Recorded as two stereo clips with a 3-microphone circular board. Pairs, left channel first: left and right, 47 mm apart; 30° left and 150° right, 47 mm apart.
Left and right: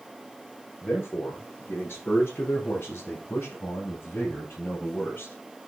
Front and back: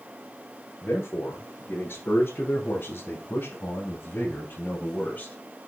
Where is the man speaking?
55° left, 5.5 m; by 5.3 s 50° left, 3 m.